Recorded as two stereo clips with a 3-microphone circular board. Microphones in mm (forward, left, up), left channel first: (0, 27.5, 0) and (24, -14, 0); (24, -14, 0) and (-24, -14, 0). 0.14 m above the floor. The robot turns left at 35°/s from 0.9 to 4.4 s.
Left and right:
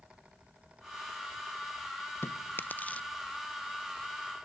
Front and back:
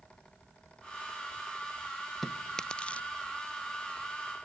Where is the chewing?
85° left; by 3.1 s 55° left.